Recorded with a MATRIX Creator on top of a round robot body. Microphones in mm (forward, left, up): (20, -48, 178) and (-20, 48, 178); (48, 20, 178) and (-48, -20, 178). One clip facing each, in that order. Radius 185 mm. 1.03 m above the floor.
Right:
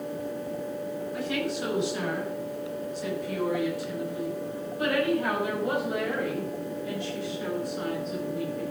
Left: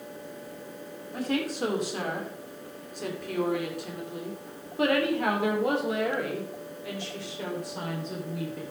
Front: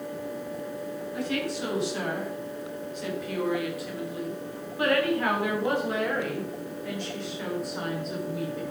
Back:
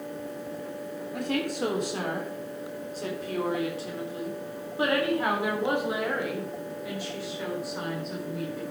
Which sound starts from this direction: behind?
A woman speaking, at 1.1 s.